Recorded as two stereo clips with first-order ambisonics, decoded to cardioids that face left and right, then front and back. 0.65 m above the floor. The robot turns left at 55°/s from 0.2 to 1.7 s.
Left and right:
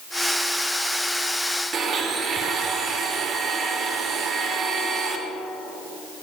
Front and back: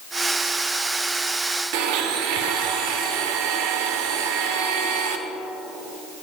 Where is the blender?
155° right, 0.6 m.